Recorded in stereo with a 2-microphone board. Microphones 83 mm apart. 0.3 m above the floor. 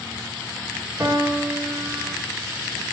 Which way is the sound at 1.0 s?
35° right (ahead or behind).